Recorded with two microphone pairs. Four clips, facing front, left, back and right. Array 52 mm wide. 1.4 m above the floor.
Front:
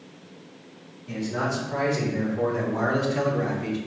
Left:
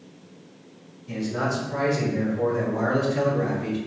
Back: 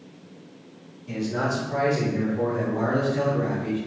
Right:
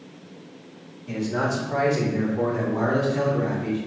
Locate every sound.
1.1 s a man speaking: 90° right, 1.7 m; by 3.8 s 10° left, 1.3 m